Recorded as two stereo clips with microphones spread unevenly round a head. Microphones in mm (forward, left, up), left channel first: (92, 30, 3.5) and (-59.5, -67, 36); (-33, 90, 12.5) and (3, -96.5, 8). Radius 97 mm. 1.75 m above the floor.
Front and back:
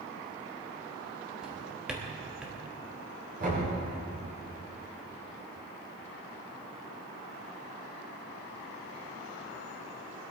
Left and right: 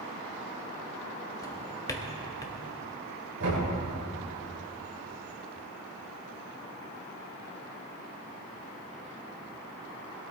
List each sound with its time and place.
1.4 s a drawer: 150° left, 1.2 m
3.4 s knocking: 105° right, 6.5 m